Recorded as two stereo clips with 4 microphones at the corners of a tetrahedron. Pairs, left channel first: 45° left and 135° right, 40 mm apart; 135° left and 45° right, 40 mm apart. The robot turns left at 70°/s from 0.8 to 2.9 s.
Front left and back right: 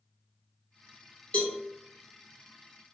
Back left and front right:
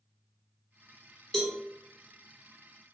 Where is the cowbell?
65° left, 1.5 m; by 1.6 s 50° left, 1.5 m.